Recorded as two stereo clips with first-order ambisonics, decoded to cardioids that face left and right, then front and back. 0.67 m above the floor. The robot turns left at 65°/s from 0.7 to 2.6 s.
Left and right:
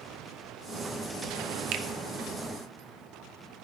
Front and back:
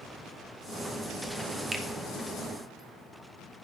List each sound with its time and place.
1.7 s a finger snap: 100° right, 0.7 m; by 1.9 s 110° right, 0.7 m